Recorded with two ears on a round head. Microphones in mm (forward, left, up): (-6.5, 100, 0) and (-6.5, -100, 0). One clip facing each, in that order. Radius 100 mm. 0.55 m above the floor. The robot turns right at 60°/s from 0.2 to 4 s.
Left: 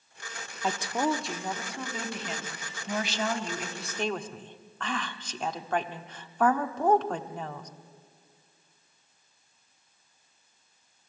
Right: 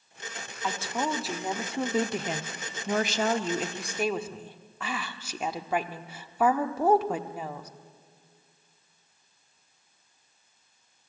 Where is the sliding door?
I don't hear a sliding door.